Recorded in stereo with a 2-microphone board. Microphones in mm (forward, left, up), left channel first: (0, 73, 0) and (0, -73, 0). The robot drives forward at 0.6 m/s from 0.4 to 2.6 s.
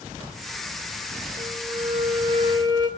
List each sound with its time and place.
1.4 s a flute: 40° right (ahead or behind), 1.2 m; by 2.9 s 30° right (ahead or behind), 1.5 m